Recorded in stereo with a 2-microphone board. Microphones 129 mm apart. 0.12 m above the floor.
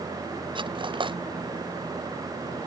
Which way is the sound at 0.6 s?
40° right (ahead or behind).